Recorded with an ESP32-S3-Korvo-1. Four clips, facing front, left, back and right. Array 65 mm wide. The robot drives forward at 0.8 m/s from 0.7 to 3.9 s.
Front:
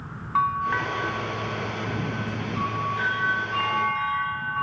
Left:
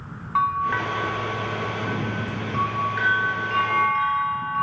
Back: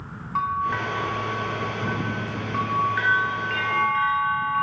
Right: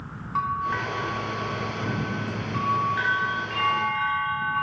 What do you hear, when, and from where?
0.3 s a bell: 55° left, 0.7 m; by 4.6 s 175° left, 2.5 m